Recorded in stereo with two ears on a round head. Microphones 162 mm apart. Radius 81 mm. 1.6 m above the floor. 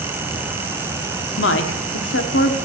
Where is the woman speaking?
75° left (ahead or behind), 0.8 m.